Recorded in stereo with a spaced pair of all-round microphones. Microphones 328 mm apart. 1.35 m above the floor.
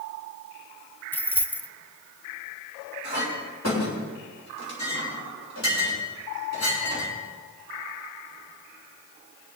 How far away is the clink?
About 5.5 m.